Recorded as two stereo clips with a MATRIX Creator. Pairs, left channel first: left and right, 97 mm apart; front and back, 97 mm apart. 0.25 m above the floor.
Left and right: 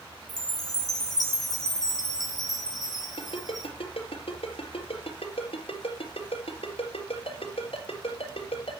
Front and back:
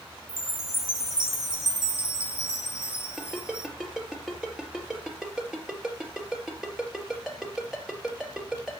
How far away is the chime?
About 2.5 m.